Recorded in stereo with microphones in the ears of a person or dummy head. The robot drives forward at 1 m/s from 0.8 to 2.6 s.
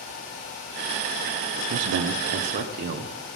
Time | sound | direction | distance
1.7 | a man speaking | 85° right | 0.9 m